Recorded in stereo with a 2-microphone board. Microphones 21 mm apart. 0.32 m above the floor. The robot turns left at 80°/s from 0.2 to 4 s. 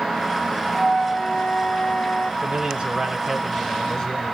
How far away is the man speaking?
About 1.8 m.